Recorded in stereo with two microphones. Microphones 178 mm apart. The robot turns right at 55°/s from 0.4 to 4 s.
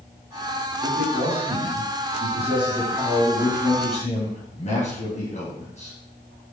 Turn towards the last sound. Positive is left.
turn(degrees=50)